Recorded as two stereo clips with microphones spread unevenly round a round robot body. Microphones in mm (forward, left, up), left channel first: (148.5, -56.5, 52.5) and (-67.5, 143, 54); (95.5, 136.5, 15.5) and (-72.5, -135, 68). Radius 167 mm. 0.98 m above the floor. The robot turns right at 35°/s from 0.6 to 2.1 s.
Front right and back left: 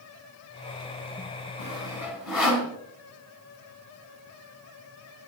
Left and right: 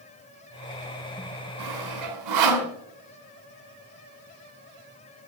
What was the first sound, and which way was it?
Sawing, 155° right.